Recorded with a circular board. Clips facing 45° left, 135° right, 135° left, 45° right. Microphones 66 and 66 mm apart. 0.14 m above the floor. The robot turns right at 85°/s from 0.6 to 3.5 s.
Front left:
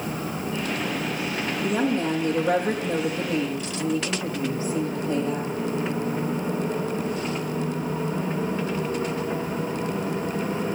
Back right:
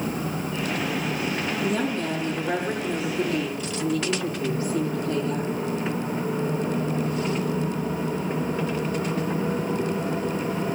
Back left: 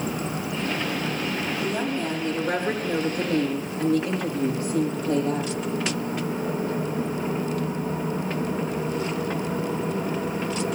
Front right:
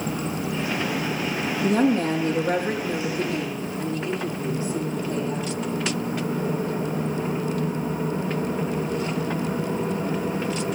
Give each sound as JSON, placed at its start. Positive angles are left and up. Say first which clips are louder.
{"t": 1.6, "sound": "a woman speaking", "louder": "front left 4 dB, front right 10 dB", "azimuth_deg": -50, "distance_m": 6.0}